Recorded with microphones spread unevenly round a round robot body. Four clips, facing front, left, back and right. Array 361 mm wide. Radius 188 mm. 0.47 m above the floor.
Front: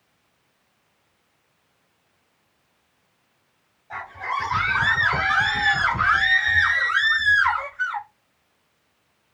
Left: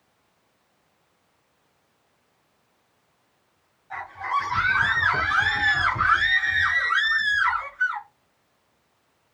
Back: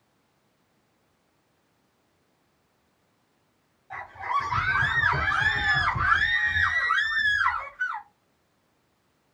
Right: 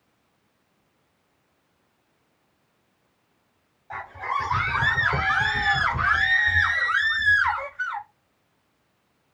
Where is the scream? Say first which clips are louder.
Left 2 dB, even; 75° right, 2.5 m; by 8.1 s 45° right, 4 m.